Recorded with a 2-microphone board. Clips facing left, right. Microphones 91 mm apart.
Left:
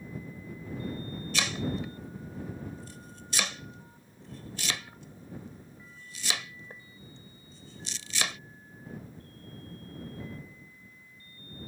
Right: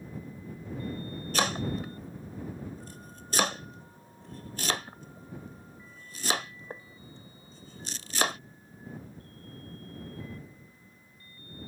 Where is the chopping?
50° right (ahead or behind).